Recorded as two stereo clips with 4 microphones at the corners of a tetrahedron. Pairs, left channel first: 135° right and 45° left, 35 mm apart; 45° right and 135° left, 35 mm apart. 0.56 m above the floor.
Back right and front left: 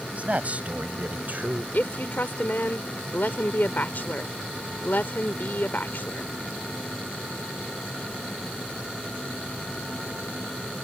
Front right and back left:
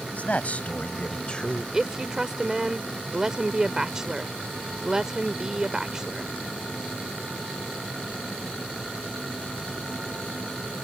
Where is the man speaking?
5° right; by 1.6 s 20° left.